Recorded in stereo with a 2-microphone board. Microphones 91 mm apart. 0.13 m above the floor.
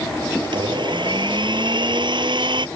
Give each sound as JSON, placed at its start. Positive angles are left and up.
{"t": 0.4, "sound": "a blender", "side_deg": -60}